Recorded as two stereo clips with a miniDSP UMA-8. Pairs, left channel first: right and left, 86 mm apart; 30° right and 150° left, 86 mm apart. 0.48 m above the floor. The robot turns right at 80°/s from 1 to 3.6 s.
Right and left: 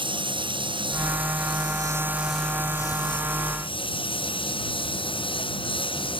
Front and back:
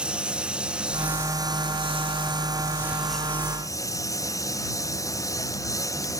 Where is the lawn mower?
70° left; by 6.2 s 80° right.